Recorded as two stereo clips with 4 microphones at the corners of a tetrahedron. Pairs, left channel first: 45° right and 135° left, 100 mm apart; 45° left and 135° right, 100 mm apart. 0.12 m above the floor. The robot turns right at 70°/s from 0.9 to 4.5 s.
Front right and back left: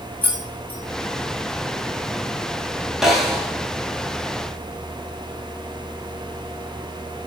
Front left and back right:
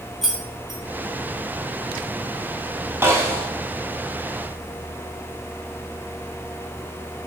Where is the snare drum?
145° right, 0.7 m; by 3.5 s 110° right, 0.7 m.